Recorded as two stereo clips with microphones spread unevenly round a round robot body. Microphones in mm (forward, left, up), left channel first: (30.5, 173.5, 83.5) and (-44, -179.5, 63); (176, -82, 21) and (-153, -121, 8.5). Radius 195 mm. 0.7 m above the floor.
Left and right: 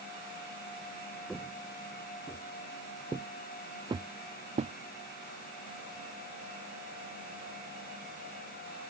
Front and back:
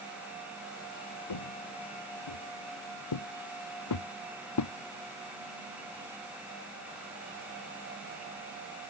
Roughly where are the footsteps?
Ahead.